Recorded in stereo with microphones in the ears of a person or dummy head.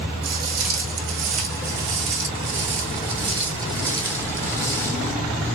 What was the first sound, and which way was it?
Footsteps, 45° right (ahead or behind).